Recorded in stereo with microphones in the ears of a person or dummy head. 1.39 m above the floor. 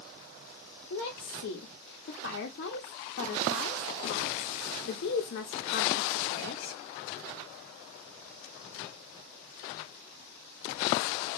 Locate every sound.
0.9 s a woman speaking: 60° left (ahead or behind), 0.6 m